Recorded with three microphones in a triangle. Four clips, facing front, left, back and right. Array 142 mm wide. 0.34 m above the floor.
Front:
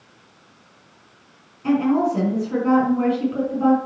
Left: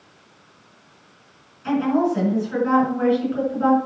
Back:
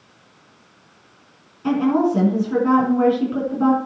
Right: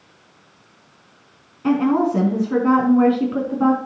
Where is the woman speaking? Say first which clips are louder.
Right 2 dB, back 1 dB; 100° right, 4.5 m.